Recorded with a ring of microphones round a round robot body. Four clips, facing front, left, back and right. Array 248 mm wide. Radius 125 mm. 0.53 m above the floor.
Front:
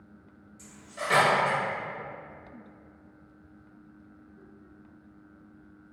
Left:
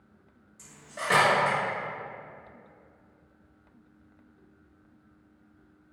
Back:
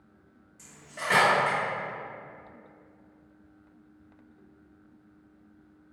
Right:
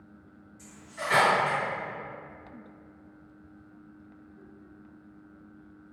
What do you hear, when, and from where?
0.6 s cutlery clinking: 105° left, 1.2 m